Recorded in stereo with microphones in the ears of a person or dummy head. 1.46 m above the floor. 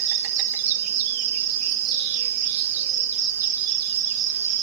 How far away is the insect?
About 0.9 m.